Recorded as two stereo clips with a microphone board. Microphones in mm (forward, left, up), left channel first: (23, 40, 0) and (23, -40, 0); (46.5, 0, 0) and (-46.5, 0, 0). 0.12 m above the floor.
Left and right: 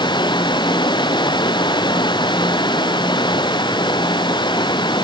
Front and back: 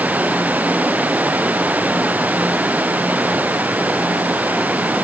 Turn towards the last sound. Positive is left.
turn(degrees=105)